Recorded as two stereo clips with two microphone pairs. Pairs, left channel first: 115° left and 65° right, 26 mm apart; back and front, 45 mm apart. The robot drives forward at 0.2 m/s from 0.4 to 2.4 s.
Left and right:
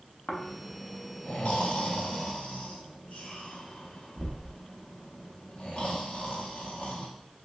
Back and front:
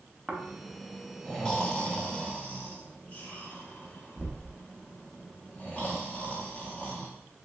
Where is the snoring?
80° left, 0.5 m; by 7.1 s 125° left, 0.6 m.